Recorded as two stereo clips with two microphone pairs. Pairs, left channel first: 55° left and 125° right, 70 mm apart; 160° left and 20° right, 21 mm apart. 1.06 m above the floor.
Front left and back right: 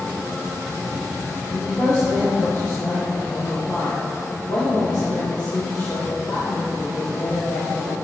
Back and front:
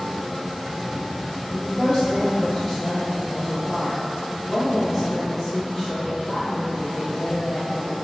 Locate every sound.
1.5 s a woman speaking: 80° left, 1.9 m